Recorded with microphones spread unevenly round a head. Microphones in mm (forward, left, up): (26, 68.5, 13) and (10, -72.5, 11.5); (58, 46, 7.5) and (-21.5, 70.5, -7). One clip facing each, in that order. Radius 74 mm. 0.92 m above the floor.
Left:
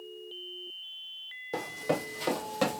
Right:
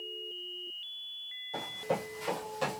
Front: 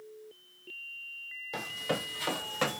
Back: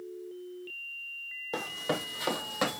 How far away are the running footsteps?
About 2.5 m.